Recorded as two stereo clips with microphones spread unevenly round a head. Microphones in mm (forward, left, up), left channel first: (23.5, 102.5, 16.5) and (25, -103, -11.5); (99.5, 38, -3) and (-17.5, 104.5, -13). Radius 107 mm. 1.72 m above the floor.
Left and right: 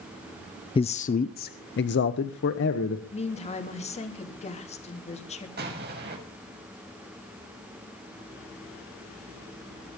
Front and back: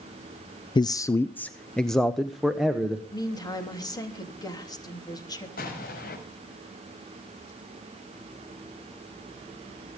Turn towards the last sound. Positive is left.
turn(degrees=-45)